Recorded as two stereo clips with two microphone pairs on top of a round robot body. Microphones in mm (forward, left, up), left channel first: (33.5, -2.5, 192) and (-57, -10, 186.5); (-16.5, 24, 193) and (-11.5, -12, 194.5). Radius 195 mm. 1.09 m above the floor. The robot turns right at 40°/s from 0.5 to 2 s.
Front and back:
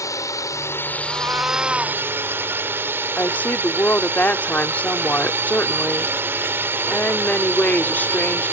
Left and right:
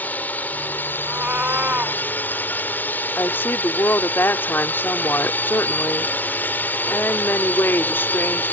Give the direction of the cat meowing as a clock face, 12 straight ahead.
4 o'clock.